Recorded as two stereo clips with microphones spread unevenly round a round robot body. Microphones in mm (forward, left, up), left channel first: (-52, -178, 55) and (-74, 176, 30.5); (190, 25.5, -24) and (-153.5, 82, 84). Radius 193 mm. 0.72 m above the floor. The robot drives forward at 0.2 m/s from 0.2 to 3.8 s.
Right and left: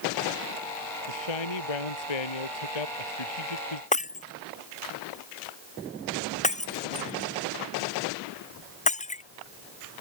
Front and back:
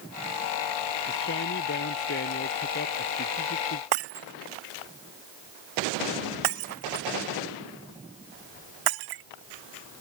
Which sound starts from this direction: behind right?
Breaking glass, at 3.9 s.